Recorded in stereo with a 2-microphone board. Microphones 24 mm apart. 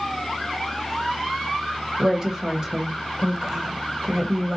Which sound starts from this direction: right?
A woman speaking, at 2.0 s.